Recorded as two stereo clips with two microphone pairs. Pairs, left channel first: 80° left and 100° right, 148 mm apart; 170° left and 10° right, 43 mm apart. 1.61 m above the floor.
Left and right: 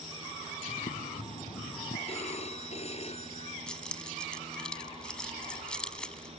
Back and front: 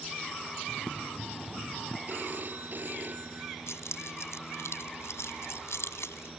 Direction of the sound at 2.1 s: 35° left.